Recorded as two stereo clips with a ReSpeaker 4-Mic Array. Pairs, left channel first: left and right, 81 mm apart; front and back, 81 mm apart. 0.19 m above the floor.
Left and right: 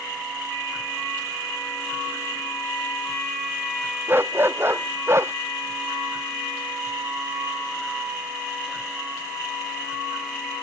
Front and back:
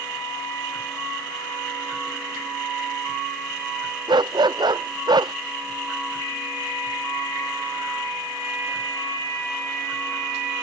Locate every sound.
4.1 s a dog barking: 155° right; by 5.3 s 150° right